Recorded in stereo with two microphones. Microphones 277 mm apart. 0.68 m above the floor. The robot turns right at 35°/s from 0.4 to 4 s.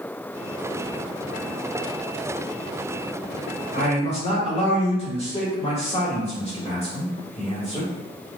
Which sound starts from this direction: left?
A man speaking, at 3.7 s.